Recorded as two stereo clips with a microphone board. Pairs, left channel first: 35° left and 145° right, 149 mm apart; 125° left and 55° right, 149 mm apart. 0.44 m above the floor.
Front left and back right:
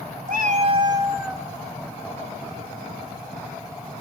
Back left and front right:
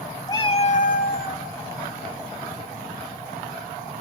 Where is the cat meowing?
170° right, 1.0 m; by 1.4 s 125° left, 1.2 m.